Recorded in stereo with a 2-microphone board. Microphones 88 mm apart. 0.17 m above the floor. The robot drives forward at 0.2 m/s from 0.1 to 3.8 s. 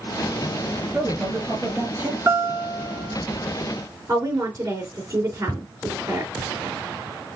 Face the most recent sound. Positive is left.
turn(degrees=35)  # may be behind; listen again after turning